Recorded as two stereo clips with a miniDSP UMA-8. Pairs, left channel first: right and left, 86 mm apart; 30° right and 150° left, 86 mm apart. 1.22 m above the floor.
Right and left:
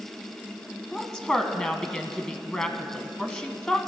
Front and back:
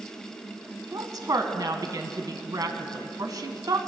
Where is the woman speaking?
165° right, 0.8 m.